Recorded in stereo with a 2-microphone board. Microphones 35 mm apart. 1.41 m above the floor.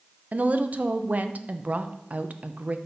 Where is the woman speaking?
45° right (ahead or behind), 0.8 m.